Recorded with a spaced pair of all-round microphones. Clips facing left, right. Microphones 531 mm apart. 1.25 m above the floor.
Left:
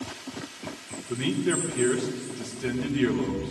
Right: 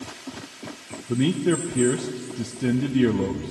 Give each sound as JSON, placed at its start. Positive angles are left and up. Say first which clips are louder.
{"t": 1.1, "sound": "a man speaking", "louder": "right 5 dB", "side_deg": -60, "distance_m": 0.9}